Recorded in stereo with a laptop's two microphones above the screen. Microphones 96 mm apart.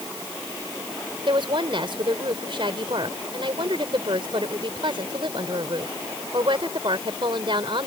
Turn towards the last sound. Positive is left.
turn(degrees=-60)  # may be behind; listen again after turning